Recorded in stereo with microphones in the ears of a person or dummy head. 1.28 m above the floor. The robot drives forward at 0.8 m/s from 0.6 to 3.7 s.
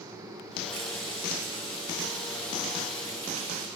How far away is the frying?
About 6 m.